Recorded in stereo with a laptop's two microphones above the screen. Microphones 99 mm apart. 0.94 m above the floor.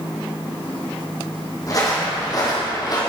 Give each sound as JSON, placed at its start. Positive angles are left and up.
{"t": 1.7, "sound": "footsteps", "side_deg": 35, "distance_m": 3.0}